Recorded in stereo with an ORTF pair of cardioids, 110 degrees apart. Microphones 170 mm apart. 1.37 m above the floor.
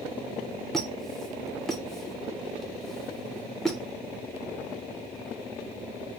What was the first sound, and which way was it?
A squeak, straight ahead.